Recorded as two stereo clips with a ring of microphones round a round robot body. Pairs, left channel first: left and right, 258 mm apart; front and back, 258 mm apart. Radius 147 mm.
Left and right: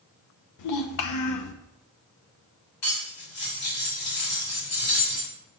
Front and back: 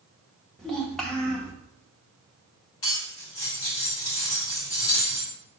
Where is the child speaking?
90° left, 0.9 m.